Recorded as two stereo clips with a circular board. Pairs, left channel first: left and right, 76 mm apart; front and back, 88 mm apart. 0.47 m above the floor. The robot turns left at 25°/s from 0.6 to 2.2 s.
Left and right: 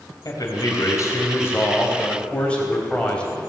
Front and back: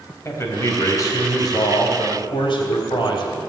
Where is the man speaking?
55° left, 3 m; by 3.4 s 15° left, 3 m.